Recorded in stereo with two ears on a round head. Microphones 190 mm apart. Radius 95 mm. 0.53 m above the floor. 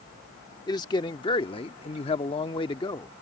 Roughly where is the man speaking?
Centre.